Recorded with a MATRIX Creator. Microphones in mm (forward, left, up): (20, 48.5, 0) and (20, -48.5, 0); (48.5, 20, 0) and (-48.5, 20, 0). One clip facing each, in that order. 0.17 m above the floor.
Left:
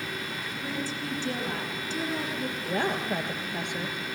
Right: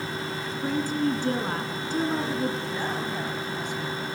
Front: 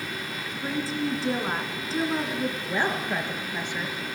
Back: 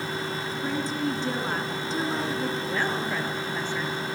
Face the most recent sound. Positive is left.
turn(degrees=75)